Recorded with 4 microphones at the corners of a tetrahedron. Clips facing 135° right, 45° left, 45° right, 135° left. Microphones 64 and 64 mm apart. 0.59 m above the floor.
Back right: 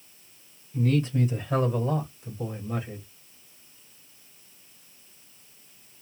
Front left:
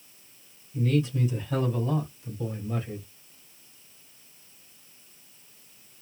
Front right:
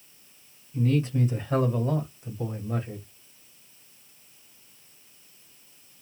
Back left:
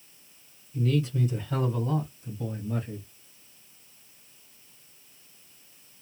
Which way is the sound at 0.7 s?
90° right.